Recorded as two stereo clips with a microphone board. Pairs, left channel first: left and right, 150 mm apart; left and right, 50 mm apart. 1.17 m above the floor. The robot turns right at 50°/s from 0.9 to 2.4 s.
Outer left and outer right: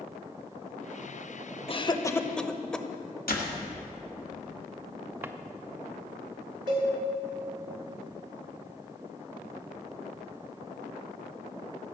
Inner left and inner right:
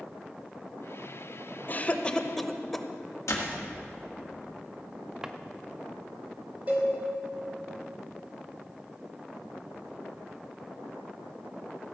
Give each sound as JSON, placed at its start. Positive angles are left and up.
{"t": 1.7, "sound": "a cough", "side_deg": 40, "distance_m": 0.8}
{"t": 3.3, "sound": "a door slam", "side_deg": 90, "distance_m": 1.9}
{"t": 5.2, "sound": "a drawer", "side_deg": -15, "distance_m": 0.6}
{"t": 6.7, "sound": "a cowbell", "side_deg": -30, "distance_m": 3.5}